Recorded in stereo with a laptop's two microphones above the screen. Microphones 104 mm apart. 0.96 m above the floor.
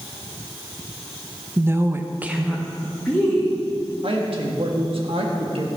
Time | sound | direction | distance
1.6 | a woman speaking | 20° right (ahead or behind) | 0.9 m
4.0 | a woman speaking | 60° right (ahead or behind) | 1.6 m